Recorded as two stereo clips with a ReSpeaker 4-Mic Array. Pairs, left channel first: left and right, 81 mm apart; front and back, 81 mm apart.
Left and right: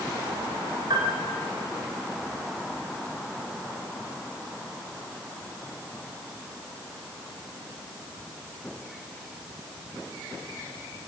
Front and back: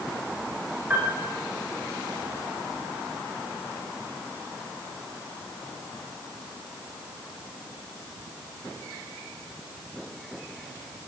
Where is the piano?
110° right, 5 m.